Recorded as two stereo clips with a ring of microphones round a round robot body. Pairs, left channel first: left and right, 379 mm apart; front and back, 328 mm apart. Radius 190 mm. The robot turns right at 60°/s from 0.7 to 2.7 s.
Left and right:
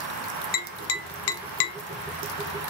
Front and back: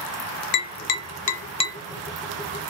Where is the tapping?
20° left, 0.6 m; by 1.8 s 85° left, 0.6 m.